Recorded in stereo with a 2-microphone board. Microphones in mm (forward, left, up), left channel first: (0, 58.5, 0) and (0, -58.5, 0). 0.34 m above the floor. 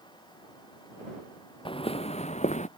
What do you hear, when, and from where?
1.6 s footsteps: 50° left (ahead or behind); by 2.7 s 80° left